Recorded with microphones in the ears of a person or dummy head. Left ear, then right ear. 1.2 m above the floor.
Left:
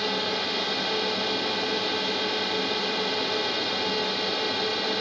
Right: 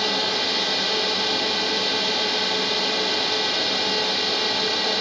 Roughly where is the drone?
Centre.